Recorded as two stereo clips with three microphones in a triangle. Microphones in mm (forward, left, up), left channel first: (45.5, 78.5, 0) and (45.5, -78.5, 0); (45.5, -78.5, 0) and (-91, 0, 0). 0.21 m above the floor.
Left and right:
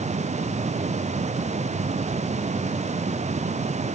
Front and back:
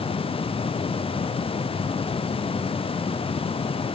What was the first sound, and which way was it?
Only background noise.